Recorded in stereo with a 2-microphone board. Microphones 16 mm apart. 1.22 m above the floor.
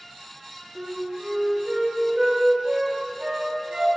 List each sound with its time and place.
0.8 s a flute: 40° right (ahead or behind), 1.7 m